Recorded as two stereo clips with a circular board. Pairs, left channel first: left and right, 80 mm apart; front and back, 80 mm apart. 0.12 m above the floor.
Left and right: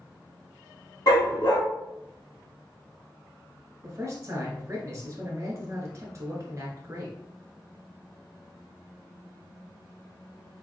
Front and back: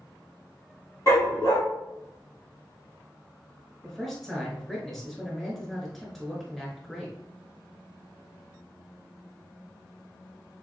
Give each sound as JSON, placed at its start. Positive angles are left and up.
{"t": 1.1, "sound": "a dog barking", "azimuth_deg": 50, "distance_m": 1.9}
{"t": 3.8, "sound": "a man speaking", "azimuth_deg": -85, "distance_m": 1.3}